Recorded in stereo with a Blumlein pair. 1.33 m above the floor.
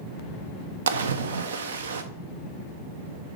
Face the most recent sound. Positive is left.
turn(degrees=-65)